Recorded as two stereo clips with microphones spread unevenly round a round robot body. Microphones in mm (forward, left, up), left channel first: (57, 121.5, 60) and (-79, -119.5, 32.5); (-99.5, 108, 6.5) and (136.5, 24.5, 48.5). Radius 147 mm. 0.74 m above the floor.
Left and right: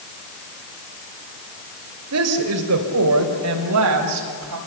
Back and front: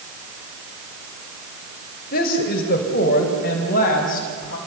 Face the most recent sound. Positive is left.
turn(degrees=-140)